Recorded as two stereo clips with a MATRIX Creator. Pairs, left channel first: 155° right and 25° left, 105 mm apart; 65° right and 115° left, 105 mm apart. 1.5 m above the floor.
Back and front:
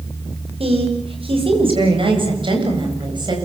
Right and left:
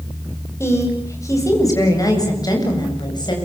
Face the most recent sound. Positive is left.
turn(degrees=-20)